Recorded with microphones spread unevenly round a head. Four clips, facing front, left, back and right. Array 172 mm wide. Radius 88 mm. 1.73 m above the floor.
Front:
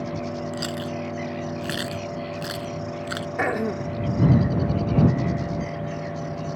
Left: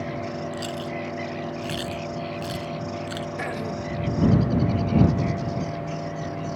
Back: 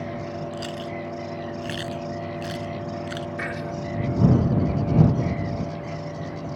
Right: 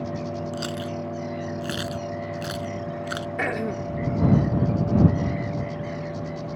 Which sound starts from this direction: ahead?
Throat clearing, at 3.4 s.